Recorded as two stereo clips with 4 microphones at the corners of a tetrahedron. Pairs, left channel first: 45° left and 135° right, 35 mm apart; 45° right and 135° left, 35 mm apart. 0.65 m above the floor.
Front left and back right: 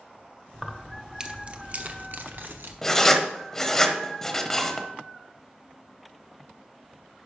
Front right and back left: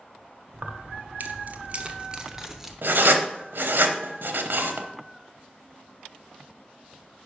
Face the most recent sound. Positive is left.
turn(degrees=125)